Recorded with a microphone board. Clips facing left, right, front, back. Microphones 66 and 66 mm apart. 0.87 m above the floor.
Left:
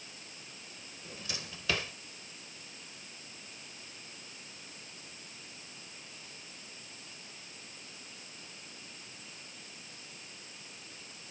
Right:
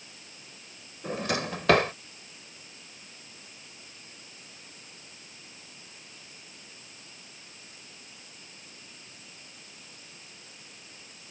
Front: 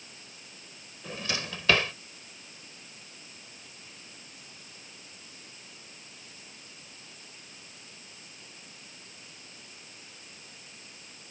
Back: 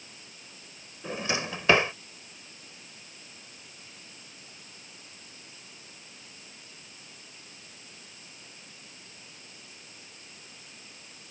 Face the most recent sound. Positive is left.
turn(degrees=-115)